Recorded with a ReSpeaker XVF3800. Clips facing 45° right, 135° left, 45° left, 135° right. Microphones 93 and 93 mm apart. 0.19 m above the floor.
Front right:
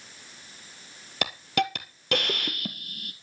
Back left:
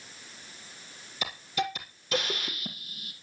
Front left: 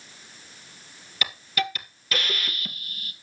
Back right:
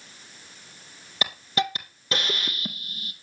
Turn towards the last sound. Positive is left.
turn(degrees=-70)